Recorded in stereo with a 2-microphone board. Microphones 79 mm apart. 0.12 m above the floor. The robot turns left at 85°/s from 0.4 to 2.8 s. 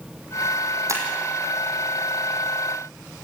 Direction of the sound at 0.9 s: 40° right (ahead or behind).